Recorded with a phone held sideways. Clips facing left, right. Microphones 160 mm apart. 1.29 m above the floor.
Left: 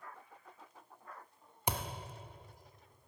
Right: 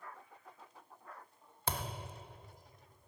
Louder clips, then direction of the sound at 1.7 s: Left 1 dB; 15° left (ahead or behind).